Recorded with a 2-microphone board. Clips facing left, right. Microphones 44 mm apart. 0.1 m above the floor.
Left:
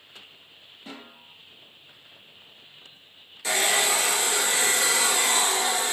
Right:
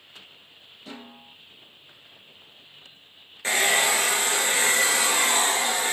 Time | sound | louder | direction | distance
0.9 | a snare drum | right 1 dB | 30° left (ahead or behind) | 1.1 m
3.4 | a hair dryer | right 2 dB | 35° right (ahead or behind) | 0.9 m